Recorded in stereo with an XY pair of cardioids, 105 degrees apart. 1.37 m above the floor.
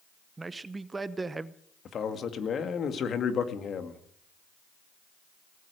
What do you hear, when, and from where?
0.4 s a man speaking: 25° right, 0.8 m
1.9 s a man speaking: 50° left, 2 m